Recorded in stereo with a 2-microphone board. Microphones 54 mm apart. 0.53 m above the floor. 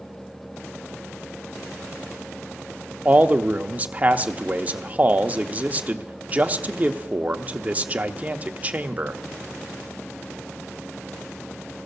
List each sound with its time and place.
3.0 s a man speaking: 30° right (ahead or behind), 0.7 m